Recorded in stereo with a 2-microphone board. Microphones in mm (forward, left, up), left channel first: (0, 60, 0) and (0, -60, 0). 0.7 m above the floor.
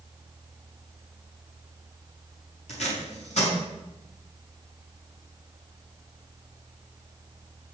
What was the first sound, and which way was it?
Tape being pulled, 65° left (ahead or behind).